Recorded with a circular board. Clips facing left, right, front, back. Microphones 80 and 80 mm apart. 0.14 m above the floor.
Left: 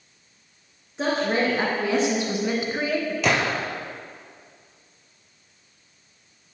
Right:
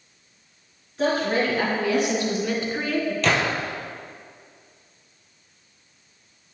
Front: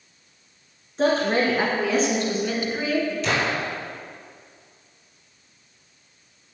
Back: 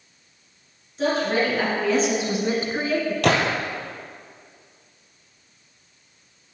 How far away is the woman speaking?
About 2 m.